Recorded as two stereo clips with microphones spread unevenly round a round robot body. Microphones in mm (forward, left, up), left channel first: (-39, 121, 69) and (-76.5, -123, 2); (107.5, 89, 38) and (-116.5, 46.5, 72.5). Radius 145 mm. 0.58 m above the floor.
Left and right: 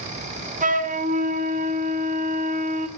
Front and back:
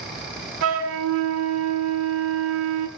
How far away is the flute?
About 2 m.